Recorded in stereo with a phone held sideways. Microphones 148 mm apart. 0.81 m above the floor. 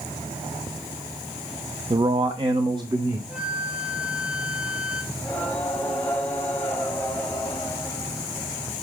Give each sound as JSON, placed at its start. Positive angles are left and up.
{"t": 1.9, "sound": "a man speaking", "side_deg": -35, "distance_m": 0.6}
{"t": 3.3, "sound": "a flute", "side_deg": -10, "distance_m": 1.1}
{"t": 5.1, "sound": "singing", "side_deg": 10, "distance_m": 1.8}